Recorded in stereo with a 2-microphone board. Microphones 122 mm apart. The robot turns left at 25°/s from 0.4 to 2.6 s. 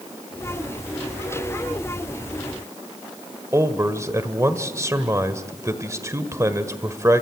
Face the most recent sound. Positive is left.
turn(degrees=-25)  # may be behind; listen again after turning